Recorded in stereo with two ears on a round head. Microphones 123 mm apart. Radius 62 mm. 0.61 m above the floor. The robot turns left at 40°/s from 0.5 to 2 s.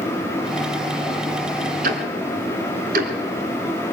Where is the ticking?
65° right (ahead or behind), 2.5 m; by 3.1 s 70° right (ahead or behind), 2.5 m.